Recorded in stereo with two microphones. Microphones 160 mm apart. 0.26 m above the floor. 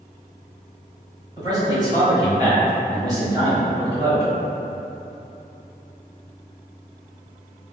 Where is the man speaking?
25° right (ahead or behind), 1.3 m.